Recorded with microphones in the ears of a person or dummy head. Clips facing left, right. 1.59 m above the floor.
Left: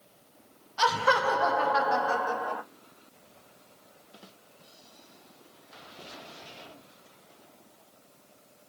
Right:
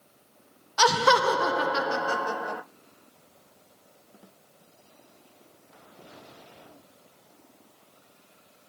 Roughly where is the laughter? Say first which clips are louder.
Right 4 dB; right.